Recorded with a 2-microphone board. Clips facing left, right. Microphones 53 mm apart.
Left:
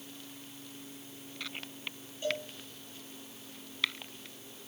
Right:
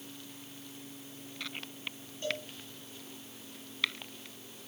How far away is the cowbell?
About 9.5 m.